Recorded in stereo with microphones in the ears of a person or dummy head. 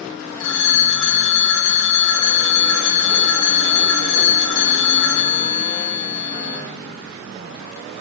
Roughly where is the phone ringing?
Left.